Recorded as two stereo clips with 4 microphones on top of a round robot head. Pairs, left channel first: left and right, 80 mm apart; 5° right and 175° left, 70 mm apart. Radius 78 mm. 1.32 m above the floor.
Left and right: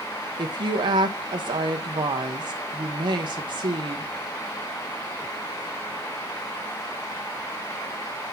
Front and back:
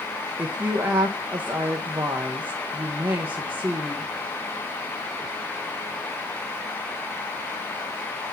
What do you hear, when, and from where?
0.4 s a woman speaking: 115° right, 0.8 m